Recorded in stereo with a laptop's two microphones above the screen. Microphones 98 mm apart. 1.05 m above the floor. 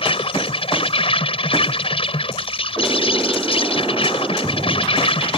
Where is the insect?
70° left (ahead or behind).